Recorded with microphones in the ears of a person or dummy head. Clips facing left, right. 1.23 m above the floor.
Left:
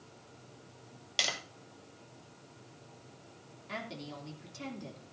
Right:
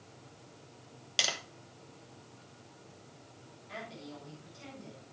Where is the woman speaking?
70° left (ahead or behind), 2.5 m.